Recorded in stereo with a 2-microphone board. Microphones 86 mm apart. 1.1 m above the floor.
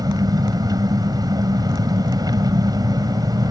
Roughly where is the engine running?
Right.